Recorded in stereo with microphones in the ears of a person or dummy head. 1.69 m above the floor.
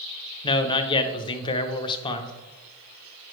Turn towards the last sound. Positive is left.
turn(degrees=25)  # may be behind; listen again after turning